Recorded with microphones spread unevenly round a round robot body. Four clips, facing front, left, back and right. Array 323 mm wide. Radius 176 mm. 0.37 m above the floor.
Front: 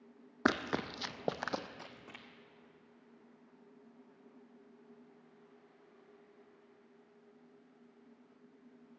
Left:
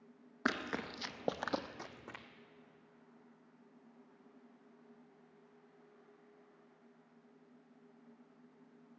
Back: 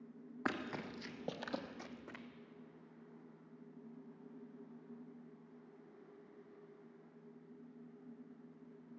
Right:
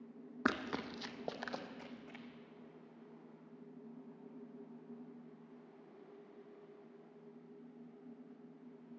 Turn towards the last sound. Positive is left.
turn(degrees=90)